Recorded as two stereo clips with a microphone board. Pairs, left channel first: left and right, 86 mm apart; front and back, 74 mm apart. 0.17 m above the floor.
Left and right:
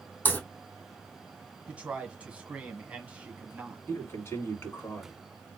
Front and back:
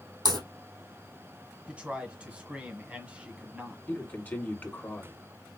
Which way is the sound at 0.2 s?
160° left.